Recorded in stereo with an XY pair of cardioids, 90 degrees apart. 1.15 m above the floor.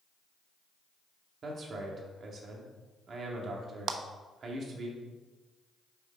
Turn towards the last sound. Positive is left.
turn(degrees=-70)